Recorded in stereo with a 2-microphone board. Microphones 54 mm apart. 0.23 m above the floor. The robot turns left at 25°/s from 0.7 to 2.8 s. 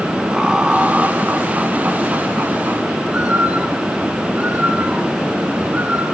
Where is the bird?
30° right (ahead or behind), 2.5 m.